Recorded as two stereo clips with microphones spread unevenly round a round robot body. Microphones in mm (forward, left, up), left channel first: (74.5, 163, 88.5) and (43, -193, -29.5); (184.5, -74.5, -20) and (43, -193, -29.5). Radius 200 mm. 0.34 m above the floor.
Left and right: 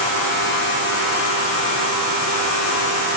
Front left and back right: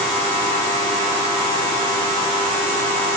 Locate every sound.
Only background noise.